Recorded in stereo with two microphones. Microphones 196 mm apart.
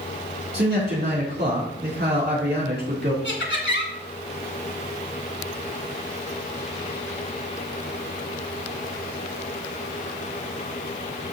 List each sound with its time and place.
0.5 s a man speaking: 55° right (ahead or behind), 3.5 m
3.2 s laughter: 70° left (ahead or behind), 3 m